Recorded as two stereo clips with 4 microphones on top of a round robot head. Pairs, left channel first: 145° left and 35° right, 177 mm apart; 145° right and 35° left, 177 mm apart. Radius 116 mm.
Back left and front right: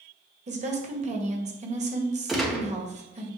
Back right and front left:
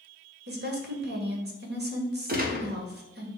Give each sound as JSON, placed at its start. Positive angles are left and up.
{"t": 0.5, "sound": "a woman speaking", "azimuth_deg": 15, "distance_m": 1.9}
{"t": 2.3, "sound": "a gunshot", "azimuth_deg": 55, "distance_m": 1.7}